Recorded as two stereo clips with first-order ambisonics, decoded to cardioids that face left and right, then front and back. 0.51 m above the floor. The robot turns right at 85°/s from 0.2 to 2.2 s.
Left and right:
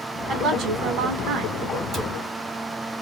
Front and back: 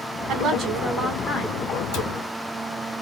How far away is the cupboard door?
About 1.9 m.